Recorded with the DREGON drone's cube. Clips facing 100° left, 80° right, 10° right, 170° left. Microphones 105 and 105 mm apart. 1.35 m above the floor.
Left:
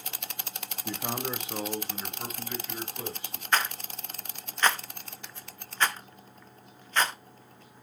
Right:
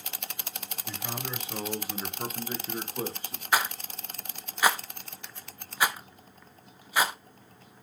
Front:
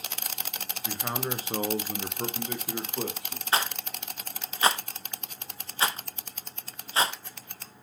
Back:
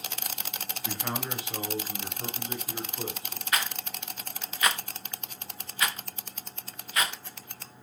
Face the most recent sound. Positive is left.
turn(degrees=-5)